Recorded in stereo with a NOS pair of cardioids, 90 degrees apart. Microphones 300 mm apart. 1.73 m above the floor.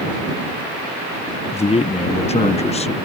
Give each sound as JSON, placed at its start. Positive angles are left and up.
{"t": 1.5, "sound": "a man speaking", "azimuth_deg": 20}